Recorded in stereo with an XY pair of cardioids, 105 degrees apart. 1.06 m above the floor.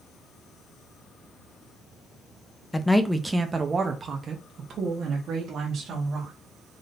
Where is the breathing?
No breathing in this recording.